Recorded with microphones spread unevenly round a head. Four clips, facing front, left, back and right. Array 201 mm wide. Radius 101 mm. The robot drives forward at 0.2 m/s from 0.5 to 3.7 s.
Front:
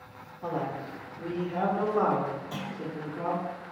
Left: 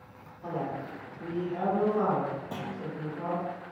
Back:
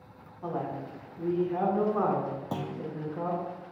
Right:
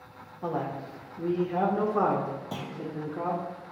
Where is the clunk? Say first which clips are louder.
Even, back 2 dB; 170° right, 0.7 m; by 2.9 s 175° right, 0.7 m.